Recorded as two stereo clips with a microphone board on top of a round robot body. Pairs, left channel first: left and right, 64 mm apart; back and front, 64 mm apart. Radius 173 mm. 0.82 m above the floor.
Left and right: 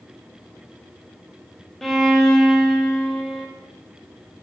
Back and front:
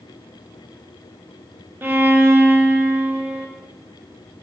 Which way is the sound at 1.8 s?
10° left.